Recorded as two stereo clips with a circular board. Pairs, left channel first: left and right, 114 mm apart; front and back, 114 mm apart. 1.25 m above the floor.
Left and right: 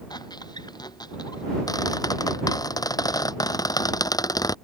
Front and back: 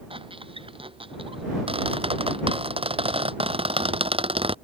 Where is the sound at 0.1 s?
145° left.